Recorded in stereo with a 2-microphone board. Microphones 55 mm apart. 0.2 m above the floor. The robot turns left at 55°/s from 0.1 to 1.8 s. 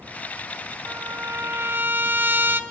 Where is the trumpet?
80° right, 0.9 m; by 2.6 s 130° right, 0.9 m.